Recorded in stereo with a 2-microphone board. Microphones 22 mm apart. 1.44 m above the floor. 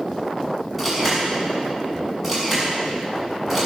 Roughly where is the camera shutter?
Centre.